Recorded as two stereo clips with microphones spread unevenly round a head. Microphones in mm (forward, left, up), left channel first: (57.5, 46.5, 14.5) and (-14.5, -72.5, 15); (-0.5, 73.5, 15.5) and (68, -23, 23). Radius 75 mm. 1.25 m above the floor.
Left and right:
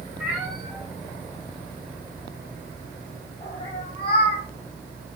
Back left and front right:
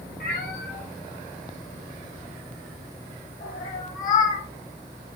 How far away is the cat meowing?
About 6 m.